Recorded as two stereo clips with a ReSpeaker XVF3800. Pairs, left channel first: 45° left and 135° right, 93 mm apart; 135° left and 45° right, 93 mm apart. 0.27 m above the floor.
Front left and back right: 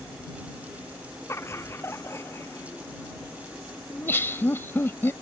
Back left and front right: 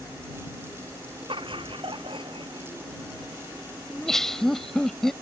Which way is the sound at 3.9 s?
55° left.